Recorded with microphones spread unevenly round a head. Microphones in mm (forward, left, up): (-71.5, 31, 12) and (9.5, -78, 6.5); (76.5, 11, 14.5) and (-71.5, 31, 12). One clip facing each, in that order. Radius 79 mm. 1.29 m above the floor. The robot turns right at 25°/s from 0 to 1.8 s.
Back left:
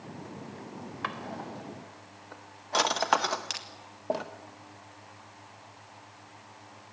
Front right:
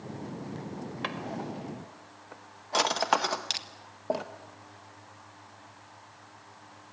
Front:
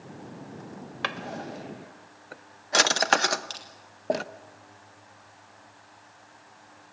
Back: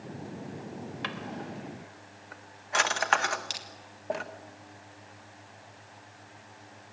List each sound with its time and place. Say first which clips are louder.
1.0 s a drawer: front right 1 dB, front 6 dB; 15° left, 0.8 m; by 4.2 s 35° left, 0.8 m
3.5 s crushing: even, even; 110° right, 1.3 m